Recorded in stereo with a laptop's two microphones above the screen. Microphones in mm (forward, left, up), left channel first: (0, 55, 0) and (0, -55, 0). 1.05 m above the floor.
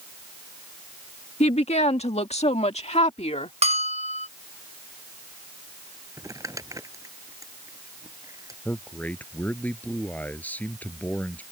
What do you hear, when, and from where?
1.4 s a woman speaking: 70° left (ahead or behind); by 3.5 s 80° left
3.6 s a bell: 70° right (ahead or behind)
6.2 s crumpling: 30° right (ahead or behind)
8.7 s a man speaking: 15° left (ahead or behind)